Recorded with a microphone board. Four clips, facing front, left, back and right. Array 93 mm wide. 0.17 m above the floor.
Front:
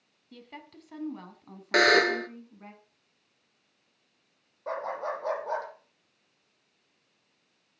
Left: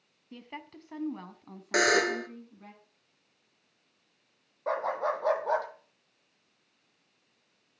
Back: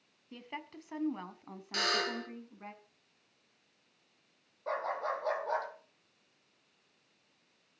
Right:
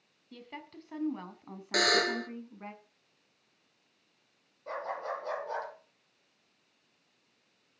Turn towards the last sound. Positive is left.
turn(degrees=80)